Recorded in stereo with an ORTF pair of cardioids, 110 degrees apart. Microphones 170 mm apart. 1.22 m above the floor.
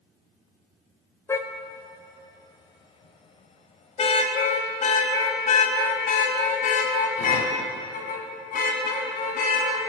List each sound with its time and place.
1.3 s a car horn: 15° left, 3 m; by 9.8 s 60° left, 7.5 m